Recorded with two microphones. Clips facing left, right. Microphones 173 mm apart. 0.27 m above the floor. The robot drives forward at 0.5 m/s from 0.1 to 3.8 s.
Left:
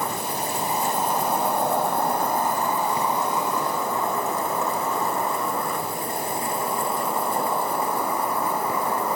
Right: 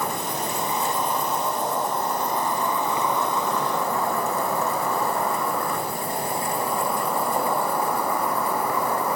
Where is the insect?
30° left (ahead or behind), 1.0 m; by 9.2 s 25° left (ahead or behind), 1.2 m.